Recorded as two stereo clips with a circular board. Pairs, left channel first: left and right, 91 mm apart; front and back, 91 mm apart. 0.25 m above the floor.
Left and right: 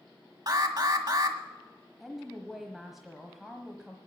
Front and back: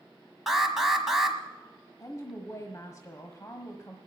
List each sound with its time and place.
0.5 s an alarm: 95° right, 1.4 m
2.0 s a woman speaking: 5° right, 1.2 m